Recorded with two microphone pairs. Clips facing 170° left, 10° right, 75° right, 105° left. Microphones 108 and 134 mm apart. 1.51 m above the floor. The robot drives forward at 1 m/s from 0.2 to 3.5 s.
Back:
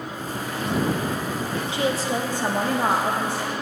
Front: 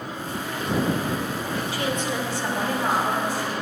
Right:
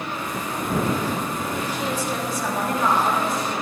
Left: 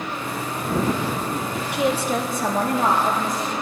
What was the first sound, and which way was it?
A woman speaking, 105° left.